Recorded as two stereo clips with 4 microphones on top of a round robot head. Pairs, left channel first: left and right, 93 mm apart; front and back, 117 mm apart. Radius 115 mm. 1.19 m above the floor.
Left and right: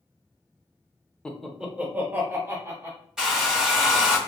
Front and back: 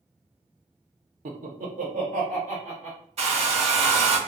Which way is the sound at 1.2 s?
170° left.